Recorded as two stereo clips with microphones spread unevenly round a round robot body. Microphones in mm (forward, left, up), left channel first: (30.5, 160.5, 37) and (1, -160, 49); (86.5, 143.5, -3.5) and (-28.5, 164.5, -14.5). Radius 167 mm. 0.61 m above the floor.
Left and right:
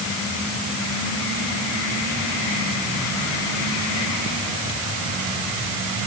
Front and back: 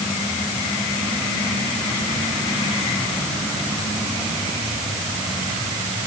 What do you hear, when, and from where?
Only background noise.